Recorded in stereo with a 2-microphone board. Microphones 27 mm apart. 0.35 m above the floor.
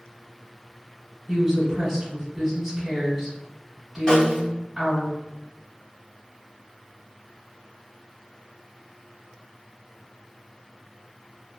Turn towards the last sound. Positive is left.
turn(degrees=30)  # may be behind; listen again after turning